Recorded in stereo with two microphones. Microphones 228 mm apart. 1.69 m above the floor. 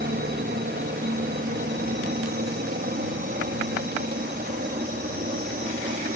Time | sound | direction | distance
0.0 | a helicopter | 45° right (ahead or behind) | ?